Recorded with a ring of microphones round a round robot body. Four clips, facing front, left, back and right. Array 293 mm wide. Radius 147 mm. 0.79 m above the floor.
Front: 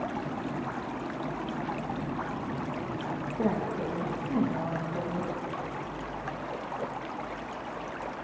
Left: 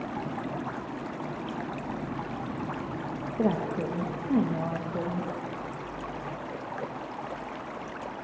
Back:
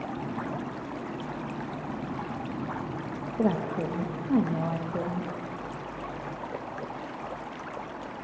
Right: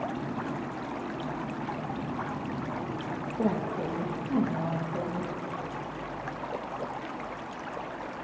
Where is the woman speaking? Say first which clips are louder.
Left 2 dB, back 3 dB; 145° left, 0.8 m.